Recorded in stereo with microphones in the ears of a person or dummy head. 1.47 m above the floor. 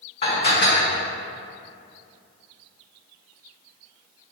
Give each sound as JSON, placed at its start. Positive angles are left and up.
{"t": 0.2, "sound": "dishes clattering", "side_deg": 35, "distance_m": 1.9}